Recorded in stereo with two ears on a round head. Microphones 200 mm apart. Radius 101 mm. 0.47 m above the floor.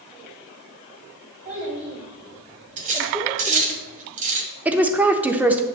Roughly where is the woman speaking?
Centre.